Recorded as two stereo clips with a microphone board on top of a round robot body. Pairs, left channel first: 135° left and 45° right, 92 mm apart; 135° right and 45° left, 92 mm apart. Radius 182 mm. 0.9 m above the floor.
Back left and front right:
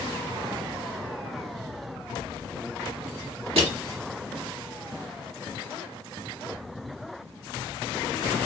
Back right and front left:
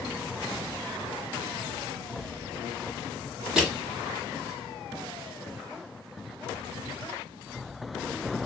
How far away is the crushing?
About 1.7 m.